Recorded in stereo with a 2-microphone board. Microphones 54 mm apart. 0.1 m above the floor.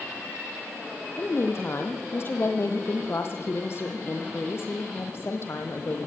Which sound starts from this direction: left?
A woman speaking, at 1.2 s.